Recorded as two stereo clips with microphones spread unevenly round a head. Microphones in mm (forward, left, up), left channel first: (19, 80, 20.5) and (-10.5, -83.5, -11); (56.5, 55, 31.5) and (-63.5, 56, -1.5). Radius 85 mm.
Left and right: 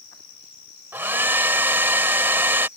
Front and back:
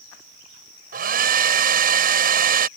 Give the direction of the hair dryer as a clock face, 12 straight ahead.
6 o'clock.